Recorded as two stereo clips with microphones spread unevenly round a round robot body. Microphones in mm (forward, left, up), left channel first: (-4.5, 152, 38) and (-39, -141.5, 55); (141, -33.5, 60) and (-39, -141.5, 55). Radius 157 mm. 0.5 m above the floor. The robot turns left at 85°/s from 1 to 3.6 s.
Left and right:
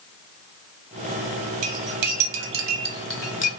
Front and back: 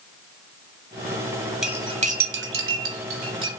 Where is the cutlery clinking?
60° right, 1.1 m; by 3.5 s 135° left, 1.1 m.